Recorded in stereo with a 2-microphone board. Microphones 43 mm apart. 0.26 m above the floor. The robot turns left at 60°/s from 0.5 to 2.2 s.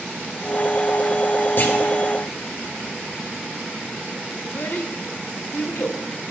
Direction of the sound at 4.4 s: 40° left (ahead or behind).